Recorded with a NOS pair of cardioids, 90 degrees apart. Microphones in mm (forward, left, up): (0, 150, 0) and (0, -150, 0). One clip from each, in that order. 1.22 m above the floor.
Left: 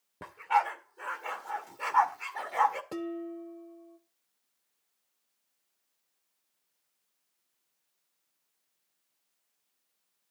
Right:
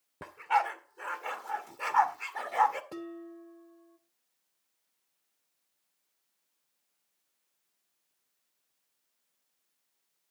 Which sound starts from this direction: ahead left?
Dishes clattering, at 2.9 s.